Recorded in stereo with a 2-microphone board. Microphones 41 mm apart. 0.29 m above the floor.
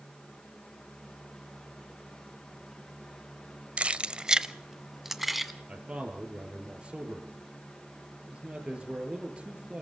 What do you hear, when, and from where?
3.8 s keys jangling: 30° right (ahead or behind), 0.6 m; by 5.5 s centre (ahead or behind), 1.6 m
5.7 s a man speaking: 25° right (ahead or behind), 5 m